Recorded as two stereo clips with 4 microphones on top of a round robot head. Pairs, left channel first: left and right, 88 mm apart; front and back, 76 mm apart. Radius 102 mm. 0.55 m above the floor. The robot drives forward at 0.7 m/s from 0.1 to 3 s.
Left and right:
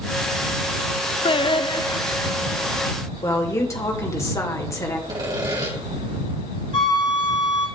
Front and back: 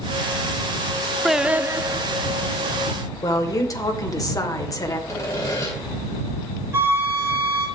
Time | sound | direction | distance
1.2 | singing | 85° left | 0.6 m
3.2 | a woman speaking | 35° left | 2.5 m
5.1 | sawing | 50° right | 4 m
6.7 | a flute | 120° left | 3 m